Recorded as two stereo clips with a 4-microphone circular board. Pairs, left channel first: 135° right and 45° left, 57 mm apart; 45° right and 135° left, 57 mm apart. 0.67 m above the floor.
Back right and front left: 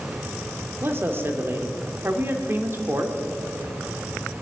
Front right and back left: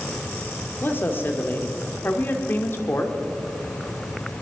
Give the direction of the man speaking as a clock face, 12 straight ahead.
12 o'clock.